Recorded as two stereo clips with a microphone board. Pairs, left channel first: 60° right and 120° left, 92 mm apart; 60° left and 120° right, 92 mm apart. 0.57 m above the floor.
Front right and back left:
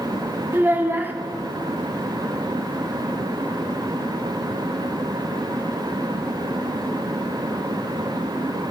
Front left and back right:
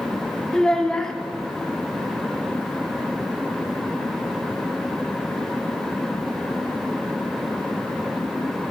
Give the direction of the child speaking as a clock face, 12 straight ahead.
8 o'clock.